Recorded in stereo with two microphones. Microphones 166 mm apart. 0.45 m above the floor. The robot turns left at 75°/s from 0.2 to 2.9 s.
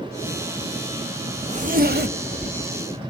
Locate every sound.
1.4 s a zipper: 35° right (ahead or behind), 0.9 m; by 2.7 s 45° right (ahead or behind), 0.9 m